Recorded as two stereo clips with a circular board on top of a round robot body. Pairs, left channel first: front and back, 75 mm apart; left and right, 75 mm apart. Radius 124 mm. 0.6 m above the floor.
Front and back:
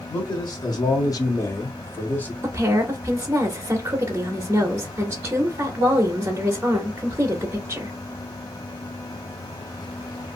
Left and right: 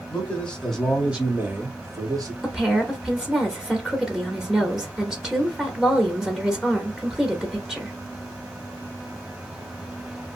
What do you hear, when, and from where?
0.1 s a man speaking: 25° left, 1.5 m; by 2.3 s 65° right, 1.4 m
2.4 s a woman speaking: 175° right, 0.9 m